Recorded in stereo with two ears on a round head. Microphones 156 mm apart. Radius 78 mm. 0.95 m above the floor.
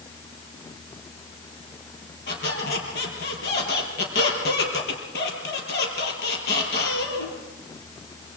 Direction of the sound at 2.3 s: 75° left (ahead or behind).